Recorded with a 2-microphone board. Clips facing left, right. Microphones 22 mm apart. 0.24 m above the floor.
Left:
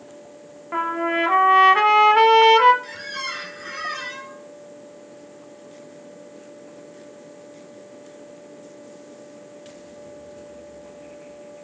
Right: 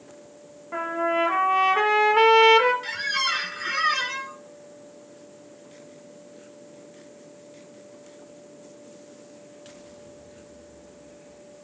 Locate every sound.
0.7 s a trumpet: 35° left (ahead or behind), 1.1 m
2.8 s a squeak: 35° right (ahead or behind), 0.9 m